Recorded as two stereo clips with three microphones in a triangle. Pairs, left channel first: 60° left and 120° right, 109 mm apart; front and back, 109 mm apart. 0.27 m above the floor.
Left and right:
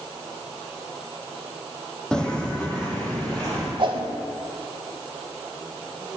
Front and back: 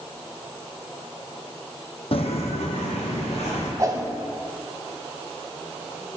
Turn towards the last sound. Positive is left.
turn(degrees=-135)